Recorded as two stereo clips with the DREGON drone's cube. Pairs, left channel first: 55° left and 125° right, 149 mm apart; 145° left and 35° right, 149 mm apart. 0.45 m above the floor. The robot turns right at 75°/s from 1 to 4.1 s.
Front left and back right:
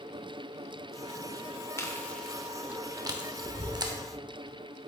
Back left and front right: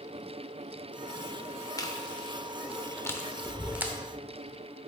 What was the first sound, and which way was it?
Chewing, 105° left.